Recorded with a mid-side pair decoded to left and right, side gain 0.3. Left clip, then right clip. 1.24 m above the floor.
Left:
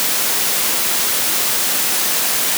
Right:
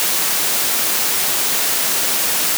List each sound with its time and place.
Only background noise.